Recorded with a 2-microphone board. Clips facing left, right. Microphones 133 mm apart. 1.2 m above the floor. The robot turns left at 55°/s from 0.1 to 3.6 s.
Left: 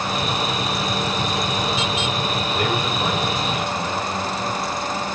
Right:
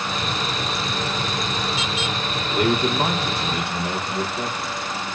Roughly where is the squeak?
I don't hear a squeak.